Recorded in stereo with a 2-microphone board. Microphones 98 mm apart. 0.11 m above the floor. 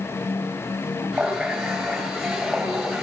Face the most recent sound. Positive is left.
turn(degrees=0)  # may be behind; listen again after turning